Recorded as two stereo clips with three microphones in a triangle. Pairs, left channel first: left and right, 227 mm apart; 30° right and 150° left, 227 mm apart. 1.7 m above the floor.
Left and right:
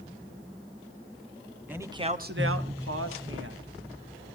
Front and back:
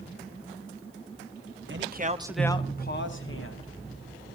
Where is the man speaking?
175° right, 1.2 m; by 3.7 s 50° right, 2 m.